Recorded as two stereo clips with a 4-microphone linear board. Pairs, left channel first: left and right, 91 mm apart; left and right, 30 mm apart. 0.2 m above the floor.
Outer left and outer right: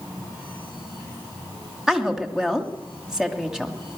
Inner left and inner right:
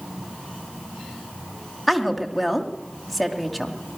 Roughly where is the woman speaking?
Centre.